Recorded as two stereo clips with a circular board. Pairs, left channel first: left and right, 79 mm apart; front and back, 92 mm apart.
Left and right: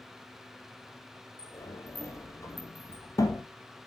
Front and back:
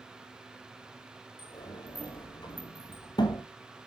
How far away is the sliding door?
About 1.2 m.